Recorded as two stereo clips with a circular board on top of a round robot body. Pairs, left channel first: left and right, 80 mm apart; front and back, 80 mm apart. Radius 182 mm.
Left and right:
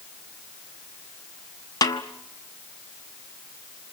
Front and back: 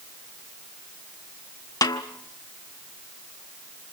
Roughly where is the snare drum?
Ahead left.